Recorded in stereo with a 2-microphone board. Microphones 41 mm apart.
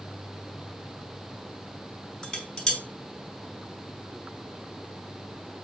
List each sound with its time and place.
2.2 s dishes clattering: 15° left (ahead or behind), 3 m